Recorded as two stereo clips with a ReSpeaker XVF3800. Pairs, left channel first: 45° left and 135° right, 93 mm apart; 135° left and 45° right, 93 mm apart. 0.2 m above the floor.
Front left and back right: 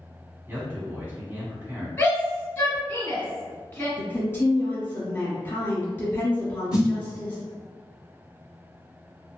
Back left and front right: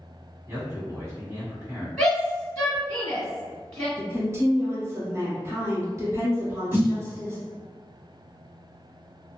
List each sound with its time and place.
0.5 s a man speaking: 80° right, 1.5 m
2.0 s a shout: 70° left, 1.3 m
4.0 s a woman speaking: 10° right, 1.3 m
6.7 s a snare drum: 70° right, 1.8 m